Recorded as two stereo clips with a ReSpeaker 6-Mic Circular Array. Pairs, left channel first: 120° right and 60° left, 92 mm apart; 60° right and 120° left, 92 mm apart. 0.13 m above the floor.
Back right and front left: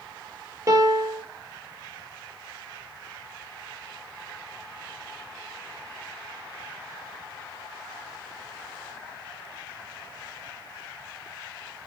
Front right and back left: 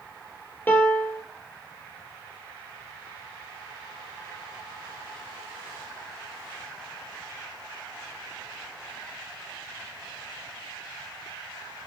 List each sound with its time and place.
0.7 s a piano: 5° left, 0.6 m